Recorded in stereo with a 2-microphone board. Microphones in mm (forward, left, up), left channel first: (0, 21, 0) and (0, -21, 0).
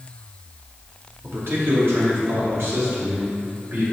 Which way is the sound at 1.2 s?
60° right (ahead or behind).